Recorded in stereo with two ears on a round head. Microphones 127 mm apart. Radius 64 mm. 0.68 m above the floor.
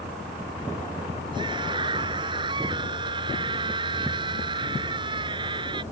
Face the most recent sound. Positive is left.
turn(degrees=-35)  # may be behind; listen again after turning